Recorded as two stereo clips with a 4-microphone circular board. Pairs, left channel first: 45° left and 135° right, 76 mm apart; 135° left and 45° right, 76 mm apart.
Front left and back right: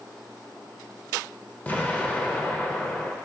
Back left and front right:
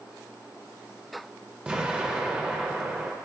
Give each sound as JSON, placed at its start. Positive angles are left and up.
{"t": 1.7, "sound": "an explosion", "azimuth_deg": 10, "distance_m": 0.9}